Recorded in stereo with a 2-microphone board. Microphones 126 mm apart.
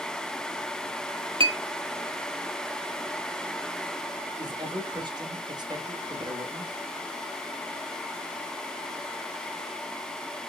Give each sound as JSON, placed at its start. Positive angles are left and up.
{"t": 1.4, "sound": "a clink", "side_deg": -45, "distance_m": 0.5}
{"t": 4.4, "sound": "a man speaking", "side_deg": -35, "distance_m": 1.0}